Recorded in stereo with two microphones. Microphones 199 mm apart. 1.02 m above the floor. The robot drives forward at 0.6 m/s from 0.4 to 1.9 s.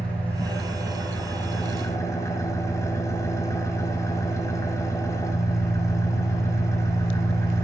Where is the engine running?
5° left (ahead or behind), 1.5 m; by 7.6 s 15° left (ahead or behind), 0.7 m.